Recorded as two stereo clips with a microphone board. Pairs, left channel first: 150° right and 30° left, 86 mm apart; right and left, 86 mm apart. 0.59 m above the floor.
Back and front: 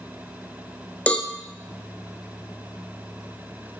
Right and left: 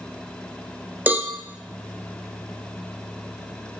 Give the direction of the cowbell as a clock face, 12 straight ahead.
7 o'clock.